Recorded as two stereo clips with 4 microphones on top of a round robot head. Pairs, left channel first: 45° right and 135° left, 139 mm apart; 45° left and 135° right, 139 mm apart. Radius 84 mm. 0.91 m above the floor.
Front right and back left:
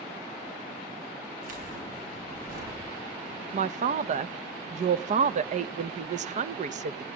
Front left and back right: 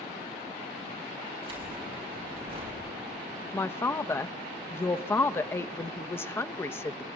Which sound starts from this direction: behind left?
A man speaking, at 3.5 s.